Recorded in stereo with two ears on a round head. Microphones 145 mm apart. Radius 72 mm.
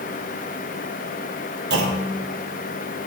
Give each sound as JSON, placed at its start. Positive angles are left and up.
{"t": 1.7, "sound": "a clunk", "side_deg": -80, "distance_m": 3.5}